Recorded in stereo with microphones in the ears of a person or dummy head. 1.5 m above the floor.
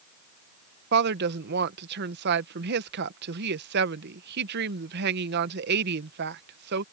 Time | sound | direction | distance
0.9 | a woman speaking | 60° right (ahead or behind) | ?